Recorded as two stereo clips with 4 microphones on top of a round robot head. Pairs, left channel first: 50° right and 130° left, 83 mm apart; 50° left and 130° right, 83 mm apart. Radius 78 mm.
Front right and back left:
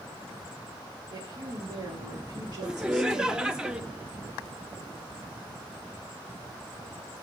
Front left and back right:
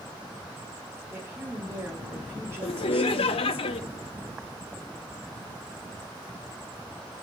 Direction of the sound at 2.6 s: 50° left.